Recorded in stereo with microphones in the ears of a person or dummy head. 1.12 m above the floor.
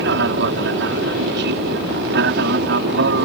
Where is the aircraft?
60° right (ahead or behind); by 3.3 s 55° right (ahead or behind).